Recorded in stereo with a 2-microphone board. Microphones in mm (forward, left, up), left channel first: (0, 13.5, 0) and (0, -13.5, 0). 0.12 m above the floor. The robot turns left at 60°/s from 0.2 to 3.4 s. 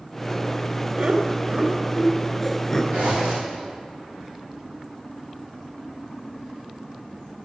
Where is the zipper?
65° right (ahead or behind), 5 m; by 3.6 s 85° right, 5 m.